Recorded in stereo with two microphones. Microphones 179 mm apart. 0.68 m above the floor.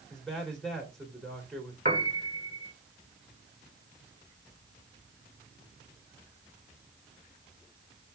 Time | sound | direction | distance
0.1 | a man speaking | 5° left (ahead or behind) | 2.5 m
1.9 | a piano | 40° right (ahead or behind) | 1.4 m